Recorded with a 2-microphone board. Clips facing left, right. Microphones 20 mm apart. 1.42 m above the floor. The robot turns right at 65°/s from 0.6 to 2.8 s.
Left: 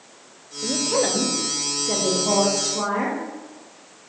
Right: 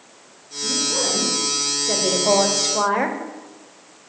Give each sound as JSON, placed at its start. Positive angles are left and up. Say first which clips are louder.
{"t": 0.6, "sound": "a woman speaking", "louder": "even", "azimuth_deg": 115, "distance_m": 0.7}